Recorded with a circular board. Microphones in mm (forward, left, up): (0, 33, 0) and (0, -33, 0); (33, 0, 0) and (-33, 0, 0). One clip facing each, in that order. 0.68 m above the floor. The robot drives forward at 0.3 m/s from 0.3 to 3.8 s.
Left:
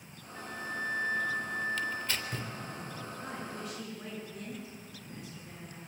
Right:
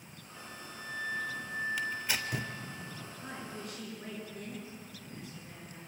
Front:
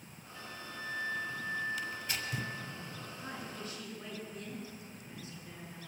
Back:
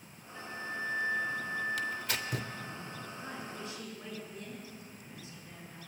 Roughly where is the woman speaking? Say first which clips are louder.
Left 1 dB, even; behind left.